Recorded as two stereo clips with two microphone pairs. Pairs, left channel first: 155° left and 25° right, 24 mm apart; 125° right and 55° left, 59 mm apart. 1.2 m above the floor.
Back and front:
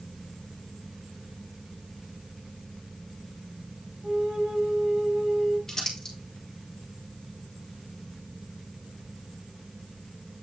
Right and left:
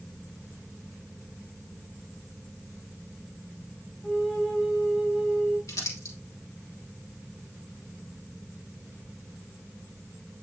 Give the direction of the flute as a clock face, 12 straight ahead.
1 o'clock.